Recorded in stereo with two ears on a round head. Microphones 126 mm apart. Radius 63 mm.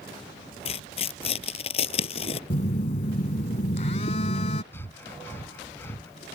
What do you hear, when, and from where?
0.7 s tearing paper: 45° left (ahead or behind)
2.5 s a phone buzzing: 45° left (ahead or behind)
4.7 s breathing: 15° left (ahead or behind)